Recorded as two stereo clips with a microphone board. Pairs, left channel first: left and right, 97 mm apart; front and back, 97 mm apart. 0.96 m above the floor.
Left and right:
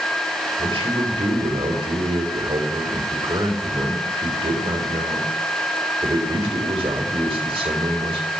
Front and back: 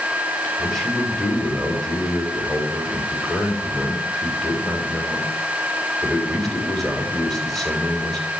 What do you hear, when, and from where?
0.6 s a man speaking: 90° right, 3 m